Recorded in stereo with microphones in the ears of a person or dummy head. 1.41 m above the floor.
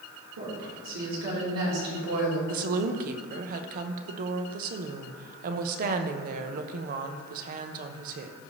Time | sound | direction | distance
0.4 | a woman speaking | 65° right (ahead or behind) | 3 m
2.5 | a woman speaking | 45° right (ahead or behind) | 0.8 m